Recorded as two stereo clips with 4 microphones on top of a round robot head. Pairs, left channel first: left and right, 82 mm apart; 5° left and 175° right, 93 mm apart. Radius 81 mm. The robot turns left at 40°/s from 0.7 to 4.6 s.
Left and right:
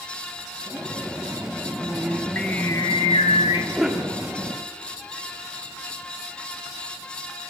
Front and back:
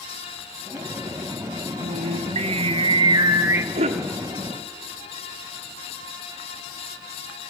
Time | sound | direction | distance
1.8 | singing | 165° right | 1.1 m
3.7 | a cough | 175° right | 1.2 m